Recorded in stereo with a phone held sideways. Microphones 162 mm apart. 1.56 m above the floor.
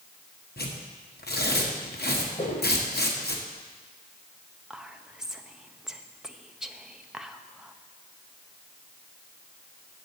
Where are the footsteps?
50° left (ahead or behind), 2.5 m.